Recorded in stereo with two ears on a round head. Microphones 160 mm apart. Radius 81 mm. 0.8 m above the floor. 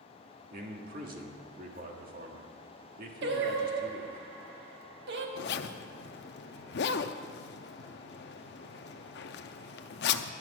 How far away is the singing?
About 1.2 m.